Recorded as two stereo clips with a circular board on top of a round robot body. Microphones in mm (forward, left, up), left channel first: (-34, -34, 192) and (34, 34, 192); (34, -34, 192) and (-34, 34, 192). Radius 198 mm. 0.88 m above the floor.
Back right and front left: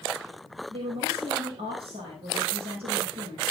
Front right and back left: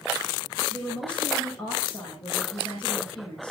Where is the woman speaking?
30° left, 5.5 m.